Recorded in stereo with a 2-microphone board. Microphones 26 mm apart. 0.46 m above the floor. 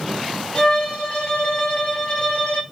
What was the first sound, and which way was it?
A violin, 35° left (ahead or behind).